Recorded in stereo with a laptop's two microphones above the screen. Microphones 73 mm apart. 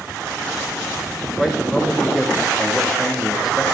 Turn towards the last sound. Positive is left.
turn(degrees=-5)  # may be behind; listen again after turning